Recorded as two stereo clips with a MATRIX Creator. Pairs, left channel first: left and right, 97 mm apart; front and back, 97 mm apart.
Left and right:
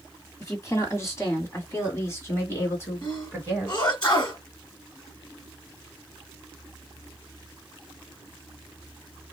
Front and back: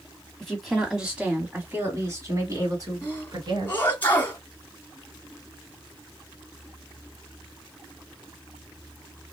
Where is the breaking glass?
I don't hear breaking glass.